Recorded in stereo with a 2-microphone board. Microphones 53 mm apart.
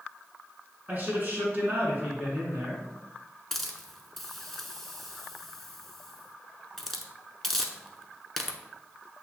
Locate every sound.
0.9 s a man speaking: 40° right (ahead or behind), 1.5 m
3.5 s a hiss: 5° left (ahead or behind), 0.6 m